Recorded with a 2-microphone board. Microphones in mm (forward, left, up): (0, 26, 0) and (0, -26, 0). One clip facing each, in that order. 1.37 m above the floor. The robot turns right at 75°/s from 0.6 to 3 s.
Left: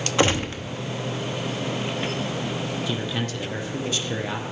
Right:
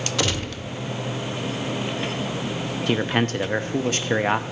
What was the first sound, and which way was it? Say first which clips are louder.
A gunshot: left 6 dB; 25° left (ahead or behind).